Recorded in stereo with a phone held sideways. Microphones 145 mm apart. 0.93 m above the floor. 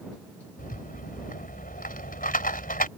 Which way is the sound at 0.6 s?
80° left.